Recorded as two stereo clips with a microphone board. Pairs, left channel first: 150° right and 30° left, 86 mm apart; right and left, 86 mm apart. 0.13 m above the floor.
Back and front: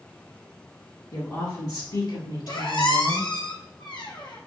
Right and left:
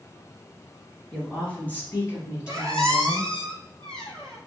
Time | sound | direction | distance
1.1 | a woman speaking | 165° right | 1.8 m
2.5 | a squeak | 170° right | 1.3 m